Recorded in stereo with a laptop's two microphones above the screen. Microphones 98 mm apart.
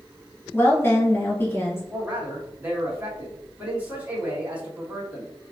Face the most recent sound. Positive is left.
turn(degrees=-20)  # may be behind; listen again after turning